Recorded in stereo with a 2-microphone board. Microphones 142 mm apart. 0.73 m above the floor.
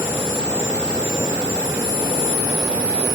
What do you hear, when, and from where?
Only background noise.